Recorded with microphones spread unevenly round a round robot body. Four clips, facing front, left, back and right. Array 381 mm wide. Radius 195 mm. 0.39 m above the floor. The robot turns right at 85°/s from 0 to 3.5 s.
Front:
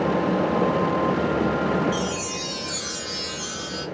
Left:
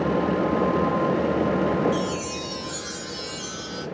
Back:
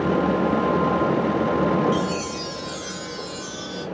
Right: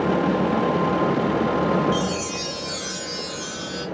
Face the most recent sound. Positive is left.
turn(degrees=25)